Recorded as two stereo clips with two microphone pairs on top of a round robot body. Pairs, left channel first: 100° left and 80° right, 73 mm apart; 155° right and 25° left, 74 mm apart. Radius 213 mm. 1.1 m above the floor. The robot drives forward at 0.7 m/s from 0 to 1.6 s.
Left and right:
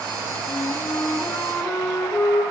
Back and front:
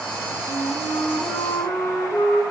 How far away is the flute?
About 4 m.